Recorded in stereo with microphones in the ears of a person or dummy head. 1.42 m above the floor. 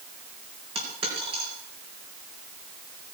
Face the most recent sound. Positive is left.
turn(degrees=-30)  # may be behind; listen again after turning